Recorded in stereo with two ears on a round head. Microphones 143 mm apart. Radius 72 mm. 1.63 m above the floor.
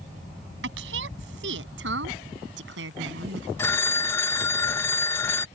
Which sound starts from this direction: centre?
A phone ringing, at 3.6 s.